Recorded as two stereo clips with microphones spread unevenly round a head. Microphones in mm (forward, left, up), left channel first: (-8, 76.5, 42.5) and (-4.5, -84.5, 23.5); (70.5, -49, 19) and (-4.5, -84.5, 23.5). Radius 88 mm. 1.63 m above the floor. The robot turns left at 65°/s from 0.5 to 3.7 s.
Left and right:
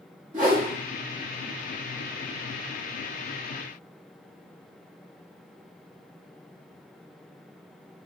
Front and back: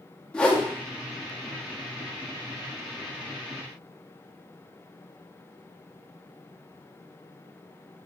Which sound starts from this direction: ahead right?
A whoosh, at 0.3 s.